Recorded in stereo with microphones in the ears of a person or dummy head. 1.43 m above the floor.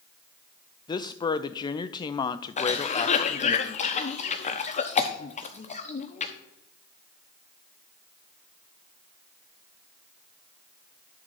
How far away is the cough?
About 1.0 m.